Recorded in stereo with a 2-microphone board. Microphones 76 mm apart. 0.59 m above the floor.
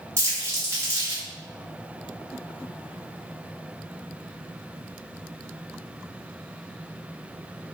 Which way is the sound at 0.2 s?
35° right (ahead or behind).